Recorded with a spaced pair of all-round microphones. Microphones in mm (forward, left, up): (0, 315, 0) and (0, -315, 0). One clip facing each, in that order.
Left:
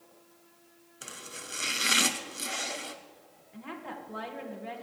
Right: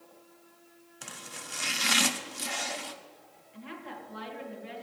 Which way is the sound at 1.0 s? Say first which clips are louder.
Left 1 dB; 25° right (ahead or behind).